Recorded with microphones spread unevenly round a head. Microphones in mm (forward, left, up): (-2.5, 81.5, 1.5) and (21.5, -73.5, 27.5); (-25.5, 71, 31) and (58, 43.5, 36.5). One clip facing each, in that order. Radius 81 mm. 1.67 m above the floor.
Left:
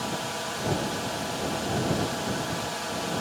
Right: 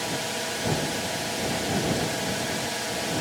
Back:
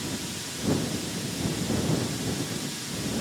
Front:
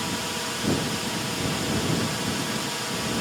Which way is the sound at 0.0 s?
15° right.